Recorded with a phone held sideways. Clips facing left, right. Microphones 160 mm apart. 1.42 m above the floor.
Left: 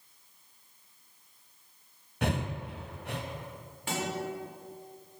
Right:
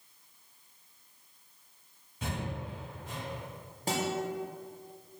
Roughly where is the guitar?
Right.